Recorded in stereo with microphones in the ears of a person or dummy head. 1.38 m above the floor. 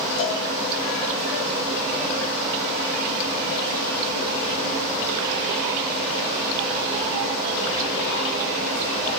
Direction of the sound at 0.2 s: 60° left (ahead or behind).